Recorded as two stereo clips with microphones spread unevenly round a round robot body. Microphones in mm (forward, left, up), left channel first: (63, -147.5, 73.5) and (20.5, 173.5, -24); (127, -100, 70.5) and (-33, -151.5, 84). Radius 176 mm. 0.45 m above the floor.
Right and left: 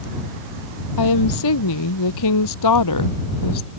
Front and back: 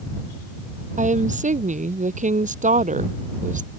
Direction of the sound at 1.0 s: 120° right.